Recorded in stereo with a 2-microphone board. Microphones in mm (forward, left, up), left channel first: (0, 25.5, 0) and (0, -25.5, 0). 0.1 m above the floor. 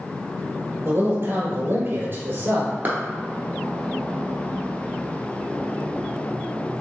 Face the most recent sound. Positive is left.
turn(degrees=-35)  # may be behind; listen again after turning